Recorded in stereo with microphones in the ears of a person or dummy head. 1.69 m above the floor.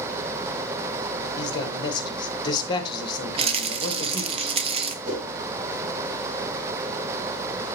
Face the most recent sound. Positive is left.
turn(degrees=-50)  # may be behind; listen again after turning